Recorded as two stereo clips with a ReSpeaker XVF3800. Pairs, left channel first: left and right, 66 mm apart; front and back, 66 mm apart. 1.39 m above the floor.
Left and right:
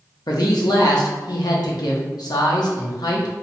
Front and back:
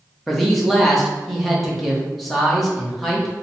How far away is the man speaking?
About 0.9 m.